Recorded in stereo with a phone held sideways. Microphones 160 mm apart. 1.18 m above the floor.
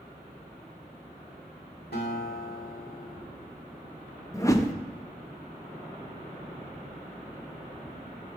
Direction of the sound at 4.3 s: 20° left (ahead or behind).